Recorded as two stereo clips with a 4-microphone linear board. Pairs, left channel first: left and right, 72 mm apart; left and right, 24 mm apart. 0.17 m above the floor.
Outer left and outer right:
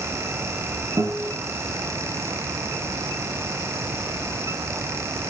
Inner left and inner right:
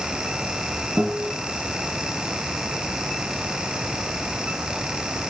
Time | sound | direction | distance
1.0 | a guitar | 45° right (ahead or behind) | 5.5 m